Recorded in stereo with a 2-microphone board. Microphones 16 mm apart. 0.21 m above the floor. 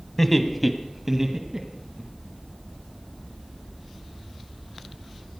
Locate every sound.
0.2 s laughter: 15° left (ahead or behind), 1.4 m; by 2.0 s 35° right (ahead or behind), 2 m